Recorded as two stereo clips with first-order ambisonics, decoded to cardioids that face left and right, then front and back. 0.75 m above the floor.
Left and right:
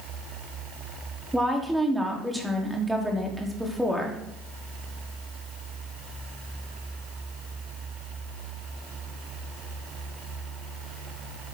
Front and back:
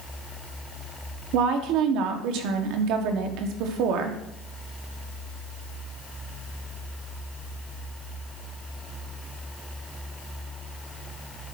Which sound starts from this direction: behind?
A woman speaking, at 1.3 s.